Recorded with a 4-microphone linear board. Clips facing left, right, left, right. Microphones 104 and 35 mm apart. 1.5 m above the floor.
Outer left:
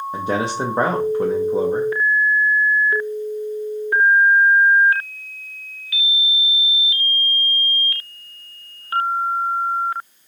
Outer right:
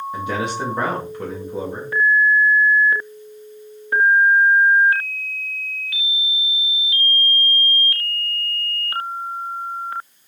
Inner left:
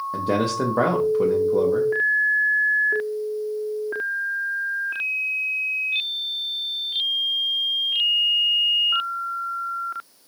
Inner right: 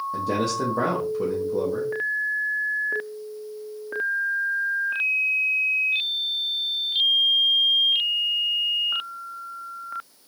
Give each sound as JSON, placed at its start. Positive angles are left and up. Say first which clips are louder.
{"t": 0.1, "sound": "a man speaking", "louder": "outer left 3 dB, inner left 3 dB", "side_deg": 35, "distance_m": 0.5}